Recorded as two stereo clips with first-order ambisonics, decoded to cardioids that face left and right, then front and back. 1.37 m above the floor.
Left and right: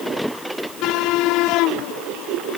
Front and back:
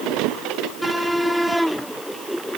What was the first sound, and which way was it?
Only background noise.